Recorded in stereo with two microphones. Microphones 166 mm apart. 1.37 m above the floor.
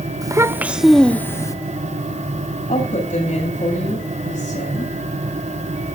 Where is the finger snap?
No finger snap in this recording.